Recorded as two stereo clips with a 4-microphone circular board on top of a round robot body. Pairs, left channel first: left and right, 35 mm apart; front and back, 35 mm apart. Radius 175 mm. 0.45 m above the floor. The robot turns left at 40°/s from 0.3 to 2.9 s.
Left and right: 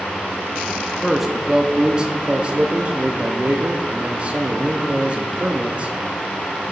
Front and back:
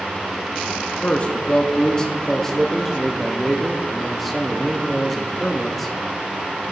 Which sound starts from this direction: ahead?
A man speaking, at 1.0 s.